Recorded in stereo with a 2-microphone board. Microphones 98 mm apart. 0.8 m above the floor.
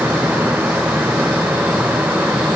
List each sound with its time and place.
Only background noise.